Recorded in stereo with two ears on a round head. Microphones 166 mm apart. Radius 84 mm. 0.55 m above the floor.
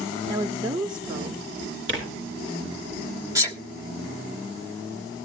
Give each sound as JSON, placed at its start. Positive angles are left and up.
{"t": 0.3, "sound": "a woman speaking", "side_deg": -25, "distance_m": 0.7}
{"t": 1.9, "sound": "tearing paper", "side_deg": -65, "distance_m": 3.0}
{"t": 3.4, "sound": "a sneeze", "side_deg": -15, "distance_m": 1.2}